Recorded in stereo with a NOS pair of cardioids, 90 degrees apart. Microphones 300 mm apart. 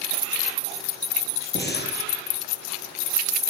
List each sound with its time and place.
1.6 s breathing: 35° left, 6.5 m